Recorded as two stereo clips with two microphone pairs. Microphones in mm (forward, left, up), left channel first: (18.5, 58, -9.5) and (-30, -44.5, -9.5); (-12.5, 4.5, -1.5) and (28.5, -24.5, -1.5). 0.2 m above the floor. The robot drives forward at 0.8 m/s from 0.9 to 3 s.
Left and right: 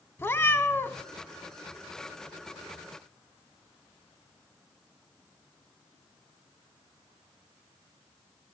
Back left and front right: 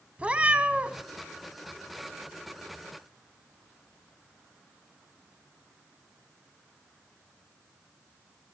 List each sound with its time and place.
0.2 s a cat meowing: 10° left, 0.5 m; by 1.0 s 15° left, 0.5 m